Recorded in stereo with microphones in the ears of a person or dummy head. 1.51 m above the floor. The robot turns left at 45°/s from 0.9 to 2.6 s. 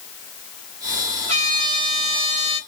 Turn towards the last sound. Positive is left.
turn(degrees=-95)